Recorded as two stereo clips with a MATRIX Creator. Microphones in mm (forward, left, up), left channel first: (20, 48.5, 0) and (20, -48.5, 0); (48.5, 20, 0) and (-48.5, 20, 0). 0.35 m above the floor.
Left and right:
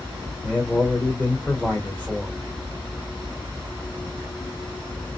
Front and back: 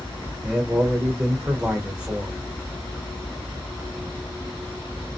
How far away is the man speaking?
About 1.5 m.